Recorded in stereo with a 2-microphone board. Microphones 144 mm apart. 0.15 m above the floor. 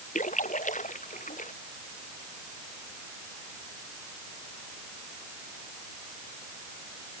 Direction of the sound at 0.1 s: 60° left (ahead or behind).